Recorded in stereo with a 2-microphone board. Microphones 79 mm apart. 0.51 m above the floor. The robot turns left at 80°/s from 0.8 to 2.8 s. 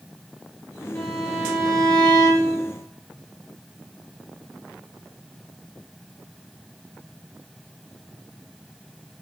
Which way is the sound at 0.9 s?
15° left.